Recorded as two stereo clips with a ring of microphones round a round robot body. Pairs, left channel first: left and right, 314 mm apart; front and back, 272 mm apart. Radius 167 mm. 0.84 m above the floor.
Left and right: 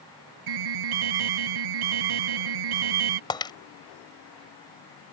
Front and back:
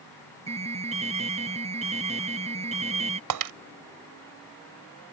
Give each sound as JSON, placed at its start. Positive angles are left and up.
{"t": 0.5, "sound": "an alarm", "azimuth_deg": -110}
{"t": 3.3, "sound": "breaking glass", "azimuth_deg": 170}